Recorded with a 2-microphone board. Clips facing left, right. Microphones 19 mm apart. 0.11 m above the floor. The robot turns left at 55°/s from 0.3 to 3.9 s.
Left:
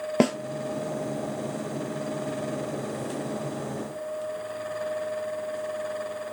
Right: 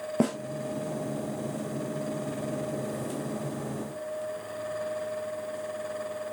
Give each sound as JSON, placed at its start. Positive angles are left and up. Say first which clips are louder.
{"t": 0.2, "sound": "a snare drum", "louder": "left 4 dB", "side_deg": 50, "distance_m": 1.6}